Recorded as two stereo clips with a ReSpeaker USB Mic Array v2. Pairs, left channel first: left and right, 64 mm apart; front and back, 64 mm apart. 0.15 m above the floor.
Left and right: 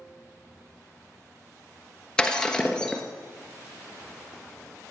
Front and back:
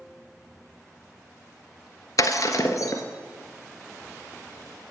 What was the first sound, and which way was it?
Breaking glass, 15° left.